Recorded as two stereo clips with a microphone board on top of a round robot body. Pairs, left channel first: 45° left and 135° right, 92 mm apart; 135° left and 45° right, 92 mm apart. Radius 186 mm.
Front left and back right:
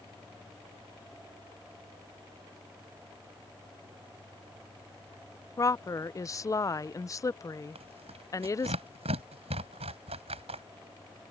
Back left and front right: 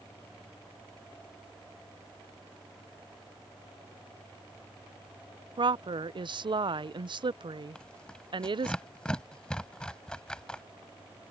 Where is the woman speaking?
10° right.